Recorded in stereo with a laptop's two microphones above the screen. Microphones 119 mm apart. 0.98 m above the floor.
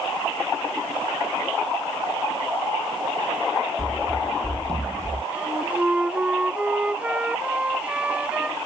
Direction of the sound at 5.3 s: 10° right (ahead or behind).